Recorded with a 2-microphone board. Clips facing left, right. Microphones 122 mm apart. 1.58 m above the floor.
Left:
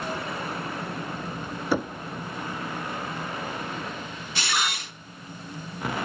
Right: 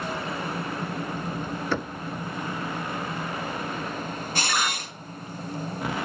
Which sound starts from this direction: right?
A camera shutter, at 4.3 s.